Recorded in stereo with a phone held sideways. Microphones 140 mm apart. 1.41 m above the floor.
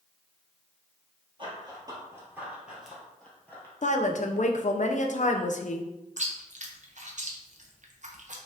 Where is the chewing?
60° right (ahead or behind), 0.8 m.